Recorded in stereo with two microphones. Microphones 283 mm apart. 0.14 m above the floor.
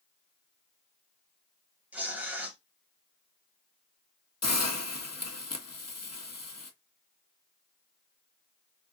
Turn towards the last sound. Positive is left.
turn(degrees=65)  # may be behind; listen again after turning